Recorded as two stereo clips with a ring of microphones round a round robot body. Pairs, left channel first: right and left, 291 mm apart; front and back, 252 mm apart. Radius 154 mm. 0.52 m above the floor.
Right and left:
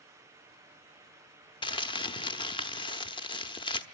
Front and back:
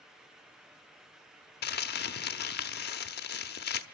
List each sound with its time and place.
1.6 s crumpling: 25° right, 0.8 m